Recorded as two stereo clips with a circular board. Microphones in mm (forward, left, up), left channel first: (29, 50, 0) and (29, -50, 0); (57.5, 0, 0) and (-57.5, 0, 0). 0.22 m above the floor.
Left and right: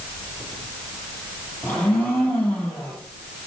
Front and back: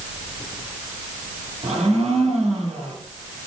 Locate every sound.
1.6 s a blender: 160° left, 5 m